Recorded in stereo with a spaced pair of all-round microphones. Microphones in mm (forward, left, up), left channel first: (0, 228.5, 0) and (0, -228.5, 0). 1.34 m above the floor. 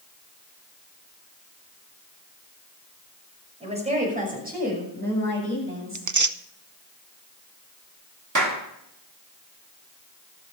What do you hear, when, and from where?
3.6 s a woman speaking: 15° right (ahead or behind), 6 m; by 6.1 s 30° right (ahead or behind), 7 m
6.0 s tearing paper: 40° right (ahead or behind), 0.5 m
8.3 s a clap: 40° right (ahead or behind), 2 m